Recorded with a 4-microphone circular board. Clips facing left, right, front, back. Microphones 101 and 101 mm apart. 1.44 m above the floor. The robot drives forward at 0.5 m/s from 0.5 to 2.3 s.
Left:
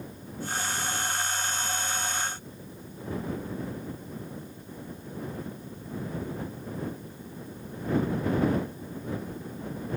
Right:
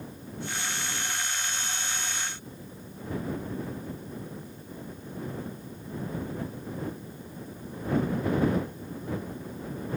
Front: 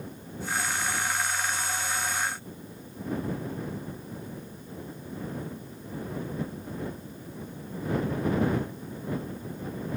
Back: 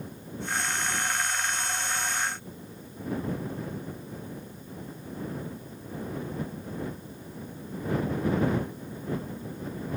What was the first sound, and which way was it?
Only background noise.